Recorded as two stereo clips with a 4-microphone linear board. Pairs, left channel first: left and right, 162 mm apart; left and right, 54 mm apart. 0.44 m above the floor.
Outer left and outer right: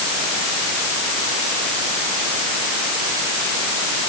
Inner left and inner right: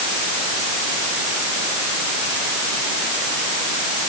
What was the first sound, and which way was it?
Only background noise.